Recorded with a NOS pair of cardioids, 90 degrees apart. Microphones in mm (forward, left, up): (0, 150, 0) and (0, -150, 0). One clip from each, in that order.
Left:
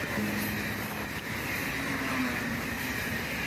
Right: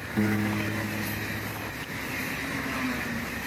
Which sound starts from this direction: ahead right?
A piano, at 0.2 s.